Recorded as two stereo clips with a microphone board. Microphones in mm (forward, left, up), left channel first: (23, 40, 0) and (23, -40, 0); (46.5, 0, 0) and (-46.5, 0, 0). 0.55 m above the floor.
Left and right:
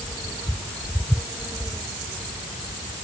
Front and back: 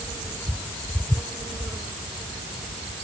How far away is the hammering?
No hammering in this recording.